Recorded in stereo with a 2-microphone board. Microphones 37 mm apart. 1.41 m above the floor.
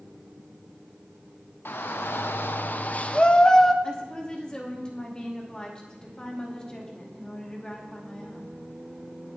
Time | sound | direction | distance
1.6 | a shout | 80° left | 1.3 m
3.8 | a woman speaking | 20° left (ahead or behind) | 2.5 m